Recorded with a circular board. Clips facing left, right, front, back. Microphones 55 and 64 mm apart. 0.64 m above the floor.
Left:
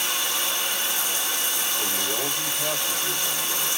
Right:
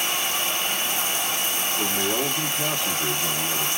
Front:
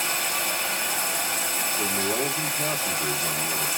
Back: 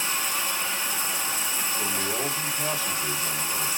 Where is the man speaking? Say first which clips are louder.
Right 5 dB, front 4 dB; 50° right, 1.2 m.